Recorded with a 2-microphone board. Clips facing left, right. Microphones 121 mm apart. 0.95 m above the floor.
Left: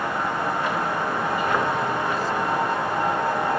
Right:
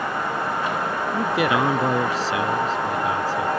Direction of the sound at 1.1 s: 75° right (ahead or behind).